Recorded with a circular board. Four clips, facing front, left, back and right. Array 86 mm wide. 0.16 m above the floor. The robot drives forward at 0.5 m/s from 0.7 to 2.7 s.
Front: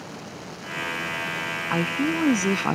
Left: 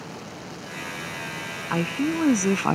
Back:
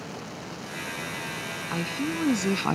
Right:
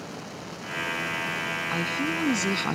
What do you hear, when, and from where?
1.7 s a woman speaking: 40° left; by 2.7 s 75° left